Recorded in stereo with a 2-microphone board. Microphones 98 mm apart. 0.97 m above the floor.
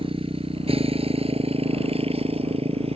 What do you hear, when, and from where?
0.0 s a motorcycle: 65° right (ahead or behind); by 3.0 s 85° right